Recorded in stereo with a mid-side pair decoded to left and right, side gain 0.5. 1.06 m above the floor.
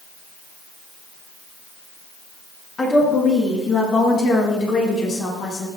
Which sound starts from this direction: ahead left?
A woman speaking, at 2.8 s.